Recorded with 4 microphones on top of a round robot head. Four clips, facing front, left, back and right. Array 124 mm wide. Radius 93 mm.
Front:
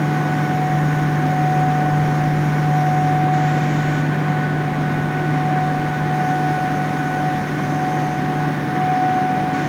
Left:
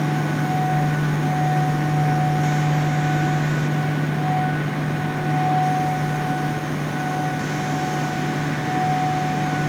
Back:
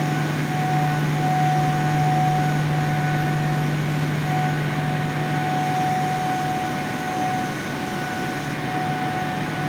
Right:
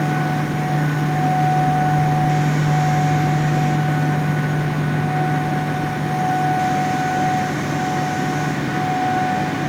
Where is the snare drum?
I don't hear a snare drum.